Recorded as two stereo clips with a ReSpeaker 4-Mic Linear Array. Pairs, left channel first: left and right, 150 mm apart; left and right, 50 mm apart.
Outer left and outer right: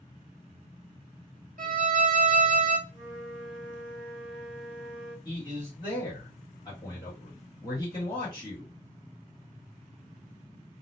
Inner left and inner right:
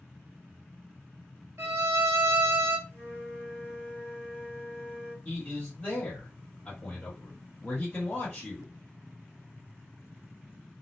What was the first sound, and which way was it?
A violin, 70° right (ahead or behind).